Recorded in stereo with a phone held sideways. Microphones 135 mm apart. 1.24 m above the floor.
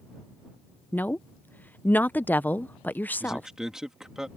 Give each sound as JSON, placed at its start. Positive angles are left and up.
{"t": 0.9, "sound": "a woman speaking", "side_deg": 15}
{"t": 3.2, "sound": "a man speaking", "side_deg": -5}